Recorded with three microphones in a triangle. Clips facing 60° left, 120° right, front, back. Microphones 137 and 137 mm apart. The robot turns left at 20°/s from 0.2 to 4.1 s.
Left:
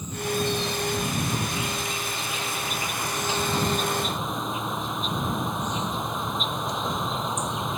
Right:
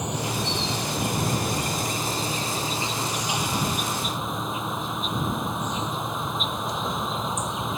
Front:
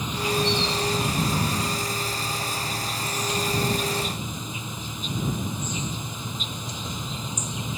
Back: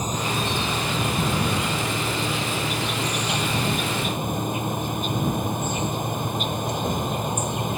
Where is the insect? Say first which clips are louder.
Left 1 dB, front 1 dB; 130° right; by 7.8 s 150° left.